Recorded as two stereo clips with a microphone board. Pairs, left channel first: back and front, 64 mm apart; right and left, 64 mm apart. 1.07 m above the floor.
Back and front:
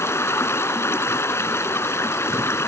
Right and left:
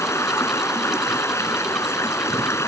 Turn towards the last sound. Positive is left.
turn(degrees=-135)